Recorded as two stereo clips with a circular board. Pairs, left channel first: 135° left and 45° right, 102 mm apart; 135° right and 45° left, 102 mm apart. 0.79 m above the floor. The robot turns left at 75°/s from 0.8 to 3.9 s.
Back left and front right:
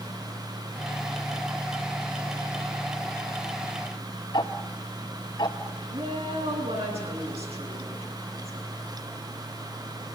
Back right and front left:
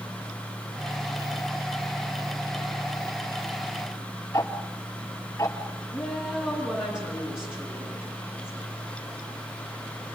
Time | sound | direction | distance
4.3 | ticking | 170° left | 2 m
5.9 | a woman speaking | 40° right | 9.5 m